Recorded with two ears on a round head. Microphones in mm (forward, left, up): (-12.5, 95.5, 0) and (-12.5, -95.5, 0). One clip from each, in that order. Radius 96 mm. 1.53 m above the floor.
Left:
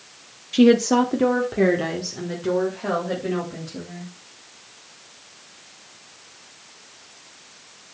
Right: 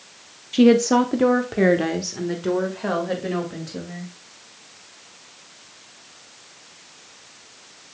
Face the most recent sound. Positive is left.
turn(degrees=-25)  # may be behind; listen again after turning